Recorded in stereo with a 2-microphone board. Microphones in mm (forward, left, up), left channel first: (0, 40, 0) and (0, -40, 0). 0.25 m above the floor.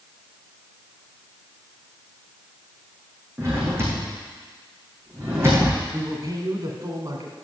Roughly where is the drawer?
Right.